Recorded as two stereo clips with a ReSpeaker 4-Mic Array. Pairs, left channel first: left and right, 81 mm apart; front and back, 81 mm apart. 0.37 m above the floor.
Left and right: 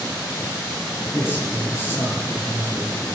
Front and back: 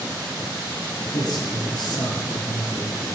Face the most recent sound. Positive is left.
turn(degrees=30)